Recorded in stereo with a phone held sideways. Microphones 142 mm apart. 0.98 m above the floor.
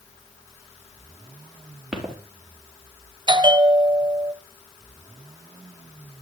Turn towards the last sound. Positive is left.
turn(degrees=-35)  # may be behind; listen again after turning